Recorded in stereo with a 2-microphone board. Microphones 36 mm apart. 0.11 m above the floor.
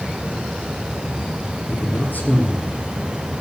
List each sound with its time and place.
1.7 s a man speaking: 55° left (ahead or behind), 3 m